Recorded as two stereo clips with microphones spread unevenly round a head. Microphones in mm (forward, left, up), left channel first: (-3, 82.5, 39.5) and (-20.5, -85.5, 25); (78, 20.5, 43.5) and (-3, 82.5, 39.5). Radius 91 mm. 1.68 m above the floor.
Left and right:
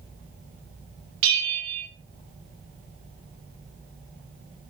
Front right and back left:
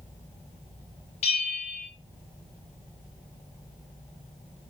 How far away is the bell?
About 1.8 m.